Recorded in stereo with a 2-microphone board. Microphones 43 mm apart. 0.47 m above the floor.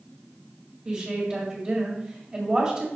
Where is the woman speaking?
30° right (ahead or behind), 2 m.